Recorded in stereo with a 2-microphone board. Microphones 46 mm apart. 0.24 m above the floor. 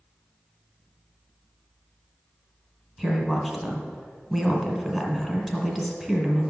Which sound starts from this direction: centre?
A woman speaking, at 3.0 s.